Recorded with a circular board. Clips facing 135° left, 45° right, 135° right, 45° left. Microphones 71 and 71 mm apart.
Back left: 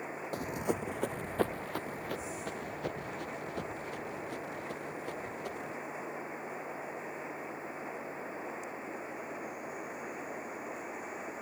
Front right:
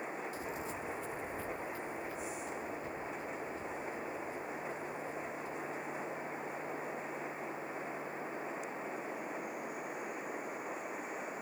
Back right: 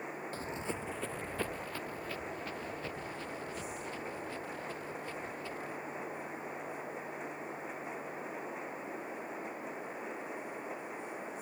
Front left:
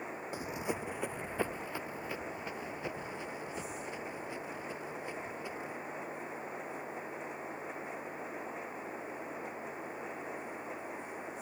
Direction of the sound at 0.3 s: 120° left.